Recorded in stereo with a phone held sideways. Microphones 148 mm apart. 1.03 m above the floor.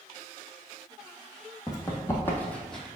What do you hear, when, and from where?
1.7 s running footsteps: 25° left (ahead or behind), 1.8 m; by 2.9 s centre (ahead or behind), 1.5 m